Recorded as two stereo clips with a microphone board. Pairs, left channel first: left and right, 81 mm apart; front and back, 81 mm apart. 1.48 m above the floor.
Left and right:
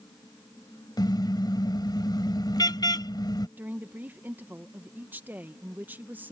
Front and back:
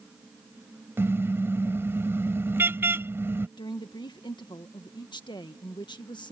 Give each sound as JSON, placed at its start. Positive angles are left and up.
{"t": 1.0, "sound": "a car horn", "azimuth_deg": 120}
{"t": 3.6, "sound": "a woman speaking", "azimuth_deg": -25}